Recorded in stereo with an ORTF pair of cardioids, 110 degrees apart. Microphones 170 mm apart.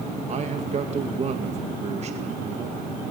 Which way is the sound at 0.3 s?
40° right.